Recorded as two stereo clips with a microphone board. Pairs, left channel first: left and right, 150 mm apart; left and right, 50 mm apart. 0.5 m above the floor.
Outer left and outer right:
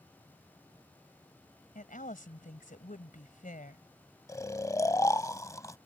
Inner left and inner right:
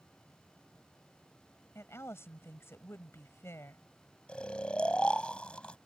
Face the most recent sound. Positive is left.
turn(degrees=20)  # may be behind; listen again after turning